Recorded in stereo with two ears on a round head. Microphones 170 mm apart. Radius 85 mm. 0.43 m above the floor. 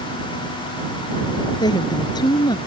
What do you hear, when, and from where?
1.6 s a woman speaking: 20° left (ahead or behind)